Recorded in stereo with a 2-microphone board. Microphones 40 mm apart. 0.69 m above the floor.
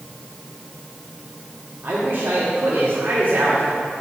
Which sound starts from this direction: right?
A man speaking, at 1.8 s.